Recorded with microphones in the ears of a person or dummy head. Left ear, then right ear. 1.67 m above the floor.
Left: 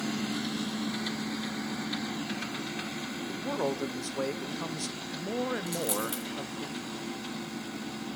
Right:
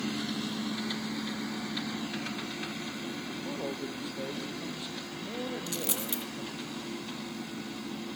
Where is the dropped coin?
15° right (ahead or behind), 3 m.